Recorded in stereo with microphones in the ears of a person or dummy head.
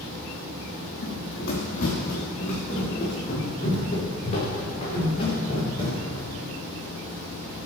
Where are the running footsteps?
65° left (ahead or behind), 3.5 m; by 6.2 s 30° left (ahead or behind), 6.5 m.